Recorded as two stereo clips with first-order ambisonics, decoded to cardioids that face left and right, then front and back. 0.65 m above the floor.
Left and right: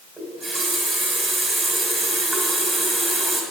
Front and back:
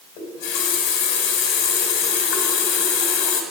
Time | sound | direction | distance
0.2 | a running tap | 5° right | 1.6 m